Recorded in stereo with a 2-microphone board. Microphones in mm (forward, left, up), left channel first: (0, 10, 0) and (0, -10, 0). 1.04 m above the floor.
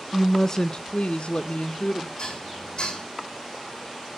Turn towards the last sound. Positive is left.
turn(degrees=40)  # may be behind; listen again after turning